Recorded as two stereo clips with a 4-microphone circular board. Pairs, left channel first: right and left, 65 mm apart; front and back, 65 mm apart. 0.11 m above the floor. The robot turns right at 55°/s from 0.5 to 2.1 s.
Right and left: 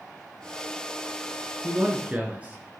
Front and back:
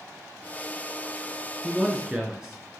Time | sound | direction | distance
1.6 | a man speaking | 95° left | 1.7 m